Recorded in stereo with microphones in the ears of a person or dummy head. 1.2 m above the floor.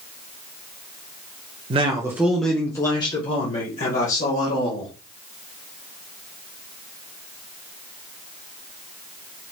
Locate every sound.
1.7 s a man speaking: 35° right (ahead or behind), 0.7 m; by 4.9 s 45° left (ahead or behind), 2.0 m